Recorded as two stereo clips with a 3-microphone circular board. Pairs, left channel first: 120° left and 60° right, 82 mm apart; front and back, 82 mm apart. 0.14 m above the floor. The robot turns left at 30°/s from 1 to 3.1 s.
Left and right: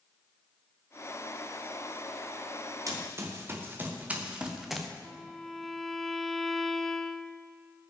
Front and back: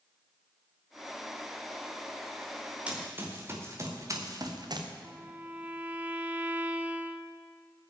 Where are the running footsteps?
105° right, 3.5 m; by 4.9 s 150° right, 2 m.